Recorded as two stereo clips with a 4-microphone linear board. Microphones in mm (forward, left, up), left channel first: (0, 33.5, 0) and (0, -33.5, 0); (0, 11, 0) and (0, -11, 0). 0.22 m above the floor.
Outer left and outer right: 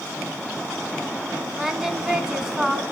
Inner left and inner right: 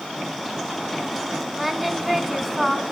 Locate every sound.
1.6 s singing: 5° right (ahead or behind), 2.5 m